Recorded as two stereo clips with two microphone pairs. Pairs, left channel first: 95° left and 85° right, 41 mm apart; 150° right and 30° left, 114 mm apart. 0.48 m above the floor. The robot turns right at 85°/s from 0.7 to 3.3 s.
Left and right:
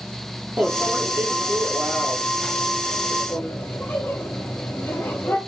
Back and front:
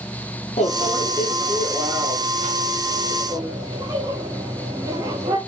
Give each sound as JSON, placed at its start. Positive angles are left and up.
{"t": 0.6, "sound": "a microwave", "azimuth_deg": -135, "distance_m": 7.0}